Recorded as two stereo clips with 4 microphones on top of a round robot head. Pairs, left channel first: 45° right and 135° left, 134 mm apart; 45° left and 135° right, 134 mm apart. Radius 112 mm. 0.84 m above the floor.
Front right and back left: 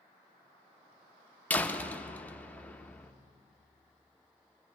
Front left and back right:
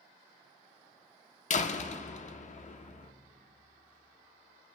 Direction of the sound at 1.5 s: 35° left.